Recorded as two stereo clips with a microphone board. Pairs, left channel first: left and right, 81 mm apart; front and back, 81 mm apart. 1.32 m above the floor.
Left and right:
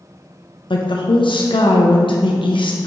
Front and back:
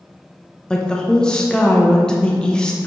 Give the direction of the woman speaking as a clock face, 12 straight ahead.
9 o'clock.